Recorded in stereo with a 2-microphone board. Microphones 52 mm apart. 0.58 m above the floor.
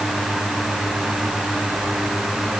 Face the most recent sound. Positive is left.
No sound to turn to.